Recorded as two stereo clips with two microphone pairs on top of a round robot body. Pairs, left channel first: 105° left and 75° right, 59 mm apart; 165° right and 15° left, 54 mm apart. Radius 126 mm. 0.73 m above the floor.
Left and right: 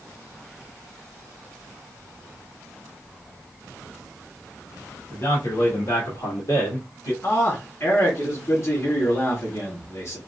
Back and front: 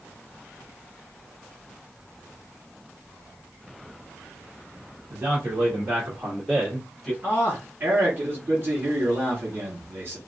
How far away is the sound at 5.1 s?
About 2 m.